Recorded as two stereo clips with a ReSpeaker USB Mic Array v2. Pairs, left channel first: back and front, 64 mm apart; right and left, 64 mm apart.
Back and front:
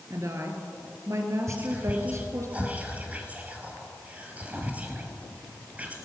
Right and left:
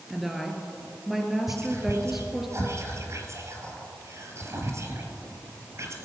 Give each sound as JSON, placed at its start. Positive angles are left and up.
{"t": 0.1, "sound": "a woman speaking", "azimuth_deg": 5, "distance_m": 2.5}
{"t": 1.5, "sound": "whispering", "azimuth_deg": 60, "distance_m": 2.5}